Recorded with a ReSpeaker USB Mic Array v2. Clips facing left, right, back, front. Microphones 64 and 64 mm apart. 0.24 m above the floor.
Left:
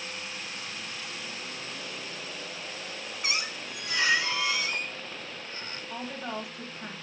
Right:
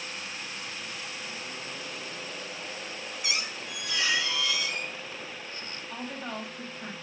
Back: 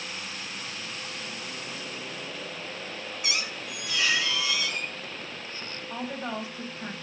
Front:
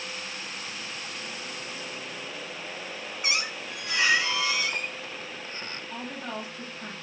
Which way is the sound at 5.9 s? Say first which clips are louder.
Left 1 dB, back 4 dB; 170° left.